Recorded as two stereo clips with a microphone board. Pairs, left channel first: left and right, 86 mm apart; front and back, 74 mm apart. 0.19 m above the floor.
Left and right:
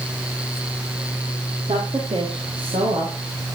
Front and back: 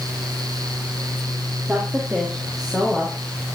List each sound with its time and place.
1.7 s a woman speaking: 105° right, 5 m; by 3.5 s 85° right, 5.5 m